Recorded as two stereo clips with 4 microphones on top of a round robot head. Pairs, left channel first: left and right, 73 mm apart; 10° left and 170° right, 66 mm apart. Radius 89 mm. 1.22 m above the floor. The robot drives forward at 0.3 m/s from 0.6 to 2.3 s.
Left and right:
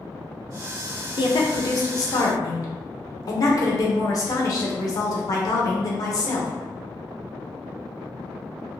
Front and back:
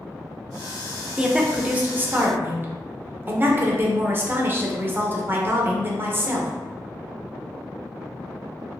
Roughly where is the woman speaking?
Left.